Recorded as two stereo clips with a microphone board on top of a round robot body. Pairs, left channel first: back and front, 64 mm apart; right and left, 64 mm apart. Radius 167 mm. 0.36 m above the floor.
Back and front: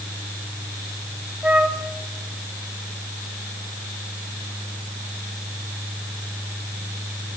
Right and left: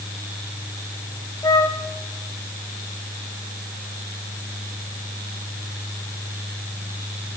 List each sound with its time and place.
1.4 s a flute: 75° right, 2 m